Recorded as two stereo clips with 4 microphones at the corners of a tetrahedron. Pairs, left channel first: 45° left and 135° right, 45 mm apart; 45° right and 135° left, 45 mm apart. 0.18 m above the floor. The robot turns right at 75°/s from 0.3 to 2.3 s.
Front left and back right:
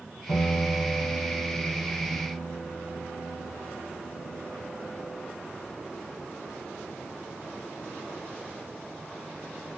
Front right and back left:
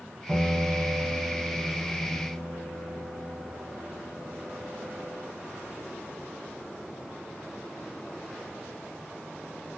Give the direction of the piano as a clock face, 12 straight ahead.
11 o'clock.